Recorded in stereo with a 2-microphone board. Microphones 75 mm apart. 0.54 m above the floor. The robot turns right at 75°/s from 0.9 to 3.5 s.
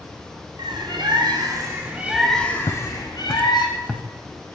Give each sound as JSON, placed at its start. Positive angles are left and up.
{"t": 0.6, "sound": "a bird", "azimuth_deg": -100, "distance_m": 5.0}
{"t": 2.7, "sound": "footsteps", "side_deg": 75, "distance_m": 2.0}